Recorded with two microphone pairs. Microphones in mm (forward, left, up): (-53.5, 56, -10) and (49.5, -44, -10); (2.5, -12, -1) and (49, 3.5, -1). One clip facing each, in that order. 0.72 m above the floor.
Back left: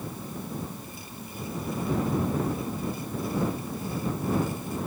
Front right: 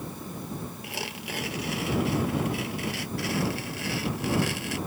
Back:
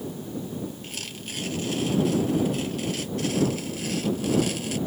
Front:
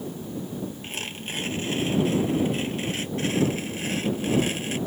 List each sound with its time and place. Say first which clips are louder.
0.8 s tearing paper: front right 5 dB, front 3 dB; 40° right